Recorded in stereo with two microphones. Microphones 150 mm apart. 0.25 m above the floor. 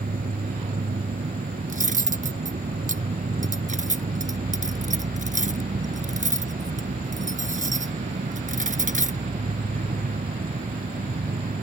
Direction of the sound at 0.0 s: 80° right.